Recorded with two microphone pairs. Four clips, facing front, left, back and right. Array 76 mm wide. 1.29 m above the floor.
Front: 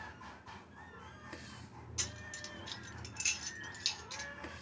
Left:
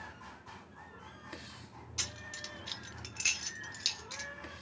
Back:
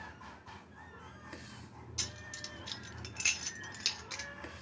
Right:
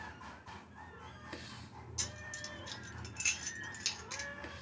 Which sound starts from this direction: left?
Keys jangling, at 2.0 s.